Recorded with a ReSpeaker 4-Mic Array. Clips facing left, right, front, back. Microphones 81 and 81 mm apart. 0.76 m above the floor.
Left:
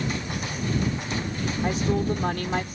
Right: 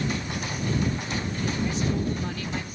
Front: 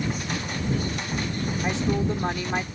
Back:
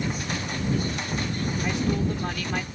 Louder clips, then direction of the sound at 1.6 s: Left 5 dB, front 2 dB; 65° left.